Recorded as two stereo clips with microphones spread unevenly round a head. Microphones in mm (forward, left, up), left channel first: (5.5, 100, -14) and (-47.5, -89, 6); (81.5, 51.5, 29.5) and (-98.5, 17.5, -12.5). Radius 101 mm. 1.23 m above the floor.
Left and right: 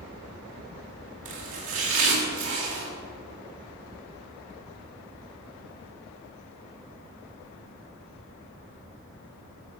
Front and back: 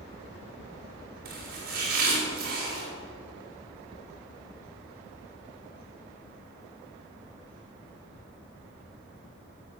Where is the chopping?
120° right, 3.5 m.